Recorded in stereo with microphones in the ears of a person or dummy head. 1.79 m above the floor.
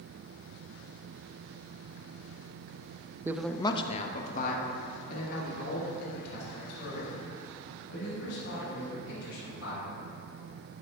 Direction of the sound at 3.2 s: 25° right (ahead or behind).